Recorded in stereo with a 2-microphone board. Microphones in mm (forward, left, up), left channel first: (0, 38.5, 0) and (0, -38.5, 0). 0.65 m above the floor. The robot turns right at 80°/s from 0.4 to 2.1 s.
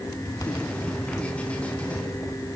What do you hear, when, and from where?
Only background noise.